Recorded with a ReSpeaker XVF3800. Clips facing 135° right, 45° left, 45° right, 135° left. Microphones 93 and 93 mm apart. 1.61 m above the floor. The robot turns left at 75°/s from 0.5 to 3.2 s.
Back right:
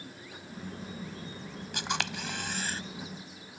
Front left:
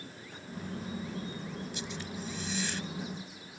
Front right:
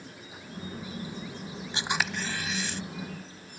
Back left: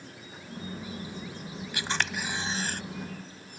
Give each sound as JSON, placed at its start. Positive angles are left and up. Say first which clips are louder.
{"t": 1.7, "sound": "a camera shutter", "louder": "back right 5 dB, front right 1 dB", "azimuth_deg": -110}